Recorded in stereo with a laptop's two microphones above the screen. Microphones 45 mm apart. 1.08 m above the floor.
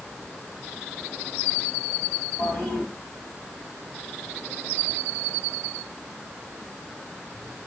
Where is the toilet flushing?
30° left (ahead or behind), 4 m.